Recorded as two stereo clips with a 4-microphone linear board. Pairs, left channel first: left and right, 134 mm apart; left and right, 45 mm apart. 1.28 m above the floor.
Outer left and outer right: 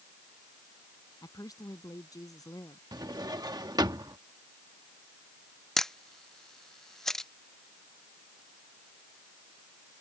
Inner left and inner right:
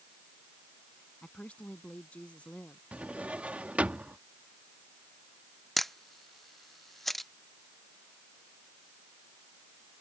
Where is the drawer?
30° right (ahead or behind).